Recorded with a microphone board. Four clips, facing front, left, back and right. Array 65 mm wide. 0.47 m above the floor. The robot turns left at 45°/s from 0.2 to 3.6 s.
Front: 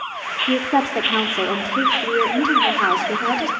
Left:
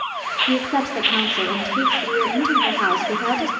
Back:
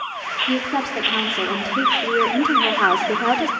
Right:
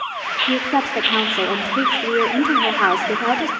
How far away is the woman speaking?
About 1.4 m.